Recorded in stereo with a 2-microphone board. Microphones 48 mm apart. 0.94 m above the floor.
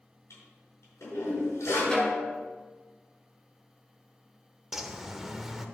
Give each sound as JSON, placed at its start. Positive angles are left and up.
{"t": 0.3, "sound": "a toilet flushing", "side_deg": 75, "distance_m": 4.5}
{"t": 1.9, "sound": "a snare drum", "side_deg": 15, "distance_m": 2.0}
{"t": 4.7, "sound": "a bird", "side_deg": -10, "distance_m": 0.8}